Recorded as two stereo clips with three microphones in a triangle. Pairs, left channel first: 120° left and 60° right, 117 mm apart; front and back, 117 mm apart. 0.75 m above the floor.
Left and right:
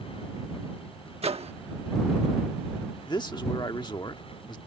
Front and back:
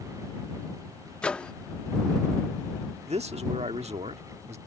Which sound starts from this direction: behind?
A man speaking, at 3.1 s.